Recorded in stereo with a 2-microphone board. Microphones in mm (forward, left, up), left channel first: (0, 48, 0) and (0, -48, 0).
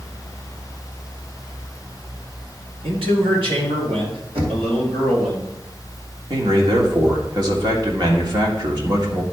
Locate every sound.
2.8 s a man speaking: 75° right (ahead or behind), 2 m; by 5.3 s 80° right, 4.5 m
4.3 s knocking: 90° right, 1.8 m
6.3 s a man speaking: 50° right (ahead or behind), 1.7 m